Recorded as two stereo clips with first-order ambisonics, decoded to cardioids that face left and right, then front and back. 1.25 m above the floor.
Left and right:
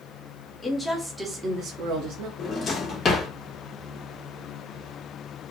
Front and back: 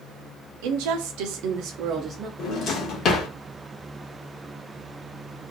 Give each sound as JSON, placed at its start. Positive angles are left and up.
{"t": 0.6, "sound": "a woman speaking", "azimuth_deg": 170, "distance_m": 0.7}
{"t": 2.4, "sound": "a drawer", "azimuth_deg": 30, "distance_m": 0.6}